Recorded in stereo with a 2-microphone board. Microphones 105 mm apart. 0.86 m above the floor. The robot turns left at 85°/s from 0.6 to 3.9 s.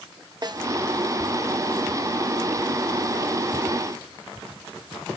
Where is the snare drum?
40° right (ahead or behind), 0.8 m.